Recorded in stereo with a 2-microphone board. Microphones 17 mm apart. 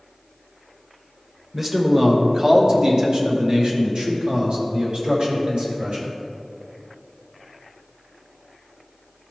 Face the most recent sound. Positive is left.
turn(degrees=-75)  # may be behind; listen again after turning